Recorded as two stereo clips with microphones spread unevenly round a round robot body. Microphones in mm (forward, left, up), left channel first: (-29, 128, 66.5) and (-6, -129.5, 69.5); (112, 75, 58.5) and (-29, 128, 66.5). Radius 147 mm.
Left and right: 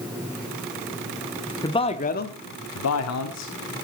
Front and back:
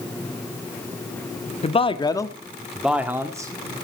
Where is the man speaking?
20° left, 1.4 m; by 3.5 s 90° left, 1.7 m.